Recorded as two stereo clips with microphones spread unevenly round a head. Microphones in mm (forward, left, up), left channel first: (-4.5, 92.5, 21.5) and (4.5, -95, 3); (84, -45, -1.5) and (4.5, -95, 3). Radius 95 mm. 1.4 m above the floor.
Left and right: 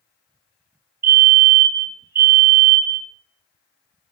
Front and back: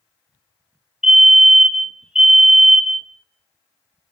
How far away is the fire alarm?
About 2 m.